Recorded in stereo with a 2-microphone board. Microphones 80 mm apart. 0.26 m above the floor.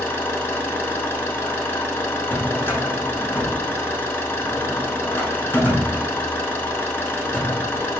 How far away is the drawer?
About 0.7 m.